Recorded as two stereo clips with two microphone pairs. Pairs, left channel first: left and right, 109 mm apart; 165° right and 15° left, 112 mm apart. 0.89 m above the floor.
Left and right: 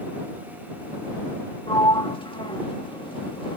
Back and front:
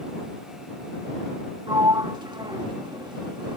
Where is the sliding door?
60° left.